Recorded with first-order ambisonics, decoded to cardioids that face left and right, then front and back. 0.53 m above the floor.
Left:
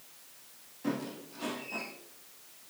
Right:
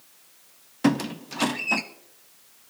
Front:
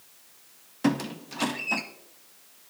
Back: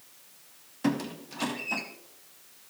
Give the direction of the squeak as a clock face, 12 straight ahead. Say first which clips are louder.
Right 12 dB, front 3 dB; 3 o'clock.